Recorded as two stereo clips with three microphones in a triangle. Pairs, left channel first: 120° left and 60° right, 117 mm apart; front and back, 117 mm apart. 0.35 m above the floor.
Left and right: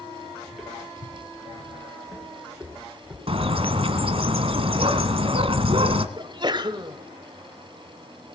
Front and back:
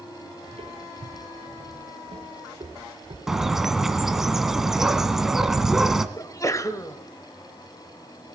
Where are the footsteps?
150° right, 5 m; by 3.2 s 135° right, 6 m.